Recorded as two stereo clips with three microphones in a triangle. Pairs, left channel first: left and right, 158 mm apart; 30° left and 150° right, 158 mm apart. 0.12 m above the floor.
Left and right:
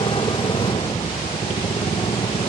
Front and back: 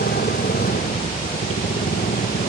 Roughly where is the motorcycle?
Ahead left.